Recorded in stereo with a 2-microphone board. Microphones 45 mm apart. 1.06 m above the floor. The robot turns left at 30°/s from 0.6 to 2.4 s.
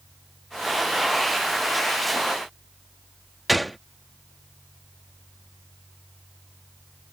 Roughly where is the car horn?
I don't hear a car horn.